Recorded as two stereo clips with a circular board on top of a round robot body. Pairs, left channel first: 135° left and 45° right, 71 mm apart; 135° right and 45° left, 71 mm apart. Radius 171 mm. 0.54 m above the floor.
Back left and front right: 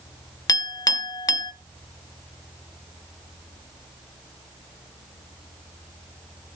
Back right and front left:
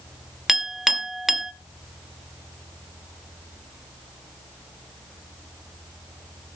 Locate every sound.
0.5 s a clink: 130° left, 0.9 m